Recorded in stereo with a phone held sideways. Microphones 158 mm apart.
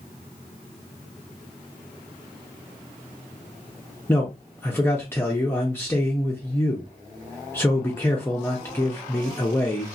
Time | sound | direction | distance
4.1 | a man speaking | 15° left (ahead or behind) | 0.7 m